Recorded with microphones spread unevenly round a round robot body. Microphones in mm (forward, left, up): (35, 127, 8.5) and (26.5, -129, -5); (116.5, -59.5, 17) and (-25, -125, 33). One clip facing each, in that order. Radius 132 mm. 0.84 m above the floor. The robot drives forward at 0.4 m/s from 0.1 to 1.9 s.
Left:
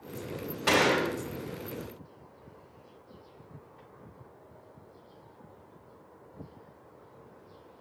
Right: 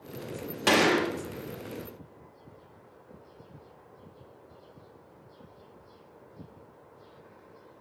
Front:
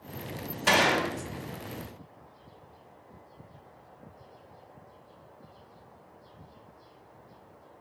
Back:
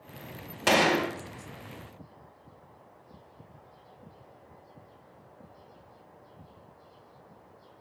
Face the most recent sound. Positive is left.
turn(degrees=-140)